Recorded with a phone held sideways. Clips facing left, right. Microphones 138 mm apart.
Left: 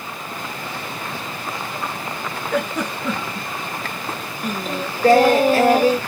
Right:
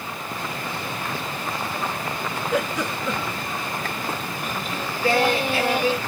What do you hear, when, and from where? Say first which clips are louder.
2.5 s a giggle: left 2 dB; 60° left (ahead or behind), 1.5 m
4.4 s singing: left 8 dB; 40° left (ahead or behind), 0.5 m